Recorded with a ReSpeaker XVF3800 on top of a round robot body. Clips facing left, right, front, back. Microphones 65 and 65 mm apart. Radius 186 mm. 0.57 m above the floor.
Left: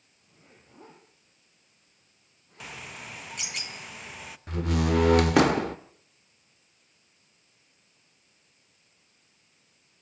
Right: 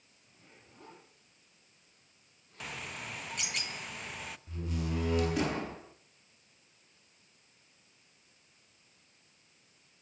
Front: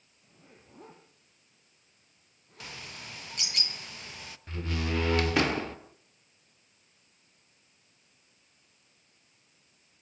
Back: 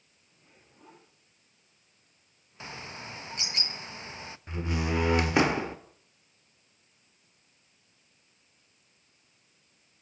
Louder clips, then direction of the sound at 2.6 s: Even, back 3 dB; 175° left.